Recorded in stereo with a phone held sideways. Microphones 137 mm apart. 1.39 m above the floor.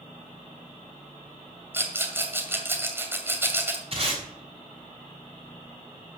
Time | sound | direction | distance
1.7 | a rattle | 15° right (ahead or behind) | 2 m
3.9 | tape being pulled | 45° right (ahead or behind) | 3.5 m